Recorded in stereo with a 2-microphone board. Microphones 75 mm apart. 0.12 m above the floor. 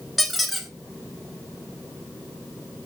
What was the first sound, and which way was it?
A squeak, centre (ahead or behind).